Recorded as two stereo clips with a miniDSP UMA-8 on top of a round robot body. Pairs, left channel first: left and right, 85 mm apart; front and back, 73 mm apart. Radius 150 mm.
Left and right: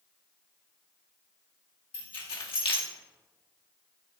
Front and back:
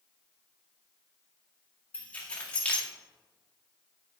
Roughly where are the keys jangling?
Left.